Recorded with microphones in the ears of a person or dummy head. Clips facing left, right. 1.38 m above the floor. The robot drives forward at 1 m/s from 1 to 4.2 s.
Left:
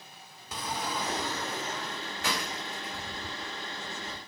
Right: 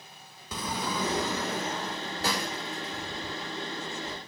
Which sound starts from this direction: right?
A sliding door, at 0.5 s.